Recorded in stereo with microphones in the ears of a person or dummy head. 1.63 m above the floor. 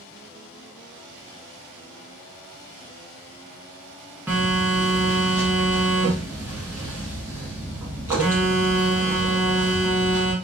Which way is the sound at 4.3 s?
10° right (ahead or behind).